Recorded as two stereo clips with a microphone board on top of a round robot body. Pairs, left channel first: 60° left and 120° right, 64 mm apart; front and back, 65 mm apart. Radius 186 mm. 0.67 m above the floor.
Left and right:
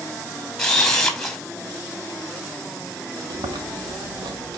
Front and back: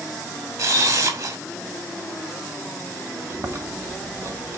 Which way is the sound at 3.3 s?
130° right.